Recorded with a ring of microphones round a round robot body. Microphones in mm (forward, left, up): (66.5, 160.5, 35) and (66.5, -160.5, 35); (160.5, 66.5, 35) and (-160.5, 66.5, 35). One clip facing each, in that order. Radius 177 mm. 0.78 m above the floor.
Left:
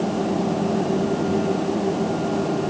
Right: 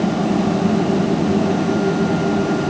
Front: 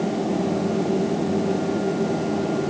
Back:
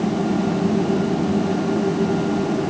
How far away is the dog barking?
No dog barking in this recording.